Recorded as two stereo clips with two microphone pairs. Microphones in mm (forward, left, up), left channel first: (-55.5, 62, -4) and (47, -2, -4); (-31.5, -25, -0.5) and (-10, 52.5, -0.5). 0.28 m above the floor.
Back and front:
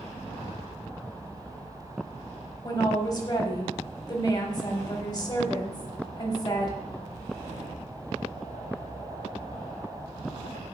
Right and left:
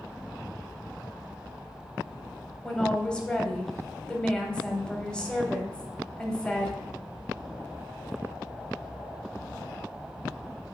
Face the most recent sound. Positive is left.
turn(degrees=180)